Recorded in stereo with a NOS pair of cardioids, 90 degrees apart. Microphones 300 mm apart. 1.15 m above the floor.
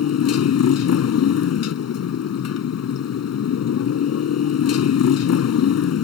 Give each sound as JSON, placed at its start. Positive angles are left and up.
{"t": 0.0, "sound": "a motorcycle", "azimuth_deg": 55}